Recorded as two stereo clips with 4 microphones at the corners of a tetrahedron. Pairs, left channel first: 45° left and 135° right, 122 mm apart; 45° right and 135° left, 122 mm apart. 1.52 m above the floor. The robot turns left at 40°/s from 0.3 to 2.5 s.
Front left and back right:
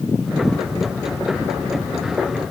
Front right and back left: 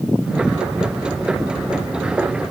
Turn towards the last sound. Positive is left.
No sound to turn to.